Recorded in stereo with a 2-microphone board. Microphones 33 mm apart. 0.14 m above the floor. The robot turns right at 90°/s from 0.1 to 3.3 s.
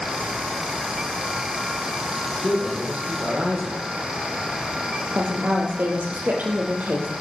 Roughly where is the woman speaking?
Right.